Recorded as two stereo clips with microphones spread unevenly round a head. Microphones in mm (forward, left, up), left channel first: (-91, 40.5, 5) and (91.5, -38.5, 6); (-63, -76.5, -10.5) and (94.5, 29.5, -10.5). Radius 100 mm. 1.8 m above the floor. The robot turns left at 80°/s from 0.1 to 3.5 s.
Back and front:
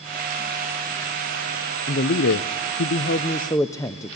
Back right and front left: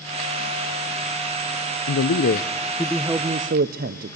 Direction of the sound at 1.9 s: 150° right.